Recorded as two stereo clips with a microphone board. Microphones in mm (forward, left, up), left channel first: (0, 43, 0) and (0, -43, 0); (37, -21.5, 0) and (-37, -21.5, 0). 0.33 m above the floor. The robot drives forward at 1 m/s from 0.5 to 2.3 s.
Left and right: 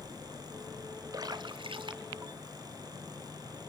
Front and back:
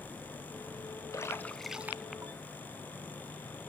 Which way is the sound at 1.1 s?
45° right.